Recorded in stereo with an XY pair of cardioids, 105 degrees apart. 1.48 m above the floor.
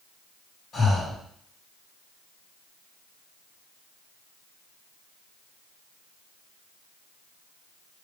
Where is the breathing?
40° left, 2 m.